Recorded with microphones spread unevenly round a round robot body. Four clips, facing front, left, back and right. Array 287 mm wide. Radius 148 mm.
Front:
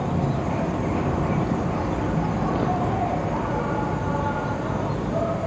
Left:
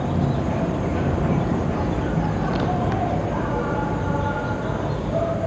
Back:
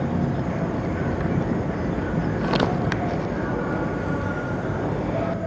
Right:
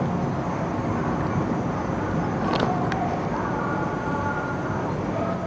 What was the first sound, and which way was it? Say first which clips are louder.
An insect: left 2 dB, even; 80° left.